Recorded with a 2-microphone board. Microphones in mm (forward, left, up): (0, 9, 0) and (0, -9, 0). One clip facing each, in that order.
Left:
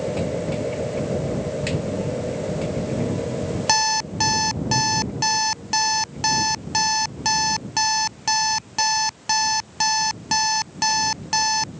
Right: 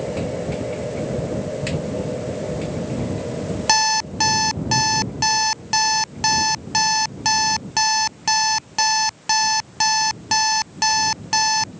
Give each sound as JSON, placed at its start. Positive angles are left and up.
{"t": 3.7, "sound": "an alarm clock", "side_deg": -15}